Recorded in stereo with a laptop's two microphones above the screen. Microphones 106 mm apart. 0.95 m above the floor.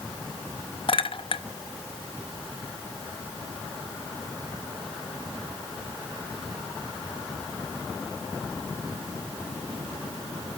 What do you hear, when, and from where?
0.9 s a clink: 55° left (ahead or behind), 0.5 m